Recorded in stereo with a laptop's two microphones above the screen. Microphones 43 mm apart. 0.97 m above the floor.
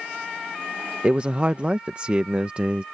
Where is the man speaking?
30° right (ahead or behind).